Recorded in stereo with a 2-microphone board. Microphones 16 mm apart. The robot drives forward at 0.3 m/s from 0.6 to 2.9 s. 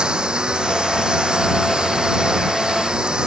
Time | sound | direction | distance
0.0 | a lawn mower | 75° right (ahead or behind) | ?